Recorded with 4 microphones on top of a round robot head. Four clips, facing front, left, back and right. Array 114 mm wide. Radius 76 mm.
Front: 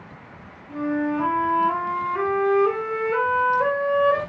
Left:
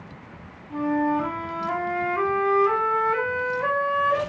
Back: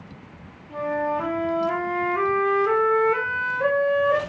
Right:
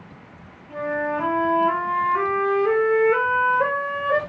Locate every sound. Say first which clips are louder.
0.7 s a flute: left 2 dB, front 1 dB; 60° right, 1.6 m